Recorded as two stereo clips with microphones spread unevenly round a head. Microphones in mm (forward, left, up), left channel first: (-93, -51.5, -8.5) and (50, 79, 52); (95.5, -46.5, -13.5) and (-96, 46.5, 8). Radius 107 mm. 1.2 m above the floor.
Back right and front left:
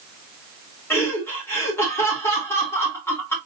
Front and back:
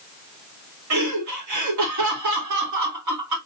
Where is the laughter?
145° left, 3 m.